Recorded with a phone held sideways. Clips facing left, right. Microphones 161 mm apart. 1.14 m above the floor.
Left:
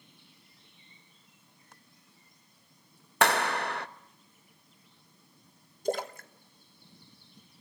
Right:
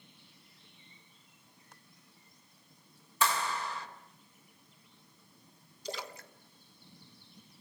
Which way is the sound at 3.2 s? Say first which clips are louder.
Left 6 dB; 70° left (ahead or behind).